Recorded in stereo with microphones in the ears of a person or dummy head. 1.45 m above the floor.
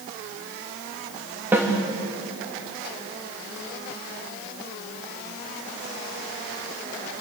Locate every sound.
1.5 s a snare drum: 15° right (ahead or behind), 3 m